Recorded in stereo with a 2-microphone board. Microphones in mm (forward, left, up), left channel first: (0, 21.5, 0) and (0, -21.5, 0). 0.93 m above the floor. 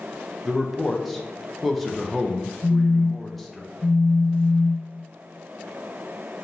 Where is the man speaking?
5° left (ahead or behind), 0.6 m.